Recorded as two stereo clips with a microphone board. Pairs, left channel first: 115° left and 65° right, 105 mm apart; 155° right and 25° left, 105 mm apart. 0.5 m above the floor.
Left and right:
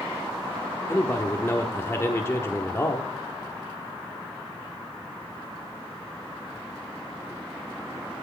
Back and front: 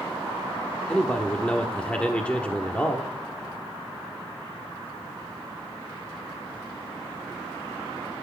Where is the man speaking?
140° left, 1.1 m.